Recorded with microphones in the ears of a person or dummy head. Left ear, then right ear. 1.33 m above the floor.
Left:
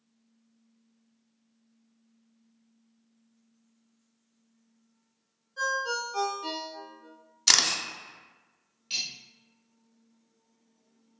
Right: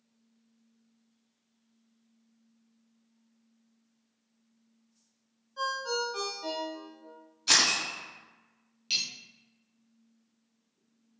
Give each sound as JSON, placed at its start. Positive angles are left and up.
{"t": 5.6, "sound": "a ringtone", "side_deg": -10, "distance_m": 0.6}
{"t": 7.5, "sound": "a camera shutter", "side_deg": 55, "distance_m": 0.7}
{"t": 8.9, "sound": "cutlery clinking", "side_deg": -35, "distance_m": 0.9}